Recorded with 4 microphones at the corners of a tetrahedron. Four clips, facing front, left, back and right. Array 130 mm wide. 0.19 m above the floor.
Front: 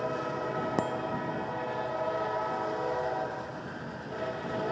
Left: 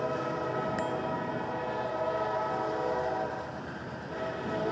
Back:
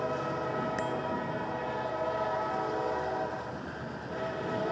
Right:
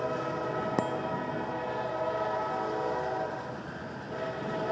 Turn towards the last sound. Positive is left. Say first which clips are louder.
# right 1 dB, front 1 dB
turn(degrees=-50)